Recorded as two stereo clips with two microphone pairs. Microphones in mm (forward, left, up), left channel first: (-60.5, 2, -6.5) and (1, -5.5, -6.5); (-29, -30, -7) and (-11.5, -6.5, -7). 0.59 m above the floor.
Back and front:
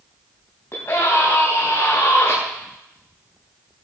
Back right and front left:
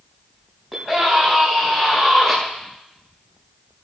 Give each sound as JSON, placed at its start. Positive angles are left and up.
{"t": 0.7, "sound": "a scream", "azimuth_deg": 120, "distance_m": 4.0}